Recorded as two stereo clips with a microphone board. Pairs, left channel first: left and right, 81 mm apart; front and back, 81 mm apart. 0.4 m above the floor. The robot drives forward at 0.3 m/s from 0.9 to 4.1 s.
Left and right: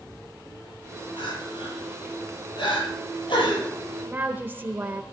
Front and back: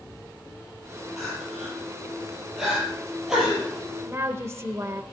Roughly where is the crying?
Left.